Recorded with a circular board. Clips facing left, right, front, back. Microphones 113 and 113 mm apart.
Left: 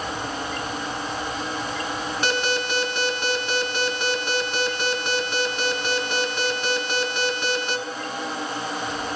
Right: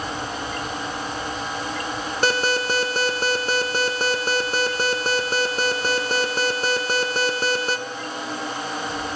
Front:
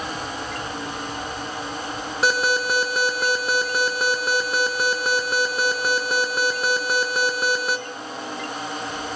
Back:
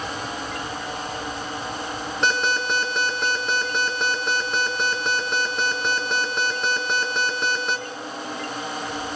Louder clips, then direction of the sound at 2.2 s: Right 4 dB, front 2 dB; 85° right.